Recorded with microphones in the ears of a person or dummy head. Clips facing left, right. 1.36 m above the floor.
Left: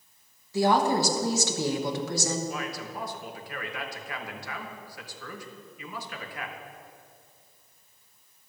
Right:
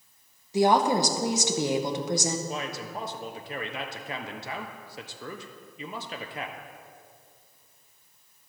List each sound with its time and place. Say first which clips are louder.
0.5 s a woman speaking: right 1 dB; 20° right (ahead or behind), 1.0 m
2.5 s a man speaking: even; 25° right (ahead or behind), 0.9 m